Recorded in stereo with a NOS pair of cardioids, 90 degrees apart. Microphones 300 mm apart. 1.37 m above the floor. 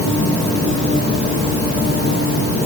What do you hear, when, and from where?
Only background noise.